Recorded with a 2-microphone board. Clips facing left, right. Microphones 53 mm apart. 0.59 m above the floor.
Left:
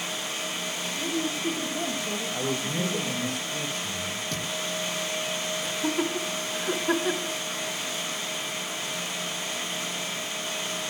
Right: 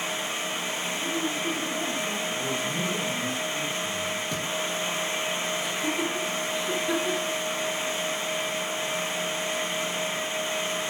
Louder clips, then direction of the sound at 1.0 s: Left 2 dB; 30° left (ahead or behind).